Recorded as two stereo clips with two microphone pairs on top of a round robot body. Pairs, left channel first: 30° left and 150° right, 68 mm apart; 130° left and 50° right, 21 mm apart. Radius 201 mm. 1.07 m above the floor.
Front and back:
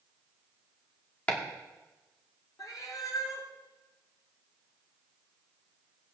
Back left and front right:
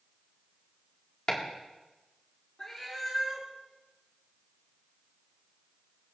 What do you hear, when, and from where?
1.3 s chopping: 90° left, 2.5 m
2.6 s a cat meowing: 70° left, 1.2 m